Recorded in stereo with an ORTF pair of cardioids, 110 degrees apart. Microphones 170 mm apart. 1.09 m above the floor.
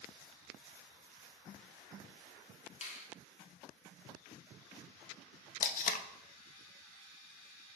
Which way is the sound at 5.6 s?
50° left.